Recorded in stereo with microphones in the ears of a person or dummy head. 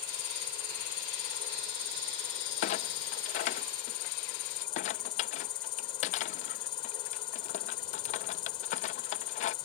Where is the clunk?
50° left (ahead or behind).